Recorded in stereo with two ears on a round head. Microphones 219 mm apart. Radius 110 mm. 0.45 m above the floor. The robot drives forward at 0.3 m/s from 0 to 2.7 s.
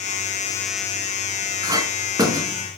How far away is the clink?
About 3 m.